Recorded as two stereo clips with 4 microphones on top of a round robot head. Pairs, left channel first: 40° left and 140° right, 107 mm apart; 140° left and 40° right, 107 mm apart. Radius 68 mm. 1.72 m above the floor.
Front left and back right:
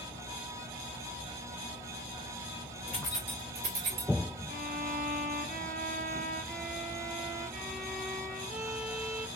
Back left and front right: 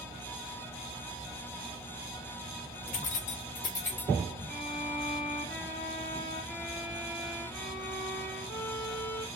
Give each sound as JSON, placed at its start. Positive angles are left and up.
{"t": 2.9, "sound": "keys jangling", "azimuth_deg": 110, "distance_m": 1.0}
{"t": 4.5, "sound": "a violin", "azimuth_deg": -150, "distance_m": 1.8}